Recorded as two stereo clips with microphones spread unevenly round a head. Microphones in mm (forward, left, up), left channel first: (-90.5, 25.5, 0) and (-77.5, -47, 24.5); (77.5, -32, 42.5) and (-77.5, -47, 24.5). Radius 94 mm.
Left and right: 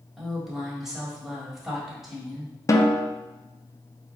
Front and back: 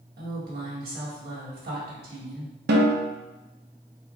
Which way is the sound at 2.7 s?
155° left.